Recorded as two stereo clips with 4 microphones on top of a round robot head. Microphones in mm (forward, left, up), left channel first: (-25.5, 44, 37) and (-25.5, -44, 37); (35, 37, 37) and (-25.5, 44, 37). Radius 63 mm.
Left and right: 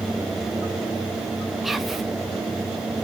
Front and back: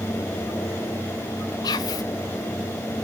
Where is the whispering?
Straight ahead, 0.5 m.